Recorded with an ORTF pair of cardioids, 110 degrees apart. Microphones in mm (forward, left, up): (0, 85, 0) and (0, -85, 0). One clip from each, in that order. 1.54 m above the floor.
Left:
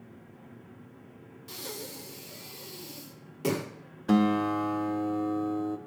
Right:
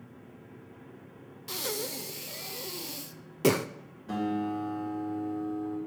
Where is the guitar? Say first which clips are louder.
Left 6 dB; 65° left, 0.8 m.